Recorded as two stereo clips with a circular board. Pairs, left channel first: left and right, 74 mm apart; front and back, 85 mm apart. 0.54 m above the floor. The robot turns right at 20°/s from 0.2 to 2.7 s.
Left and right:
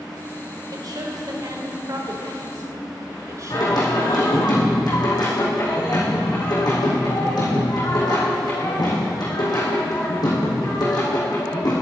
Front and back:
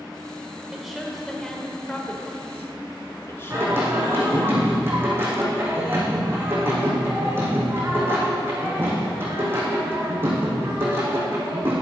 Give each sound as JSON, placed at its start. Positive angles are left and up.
{"t": 0.7, "sound": "a woman speaking", "azimuth_deg": -95, "distance_m": 1.9}
{"t": 3.5, "sound": "singing", "azimuth_deg": 115, "distance_m": 4.0}